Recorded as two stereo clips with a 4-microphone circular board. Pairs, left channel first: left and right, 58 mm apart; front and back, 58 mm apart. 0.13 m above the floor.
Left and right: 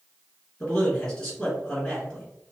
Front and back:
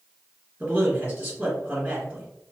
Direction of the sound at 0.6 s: 145° left.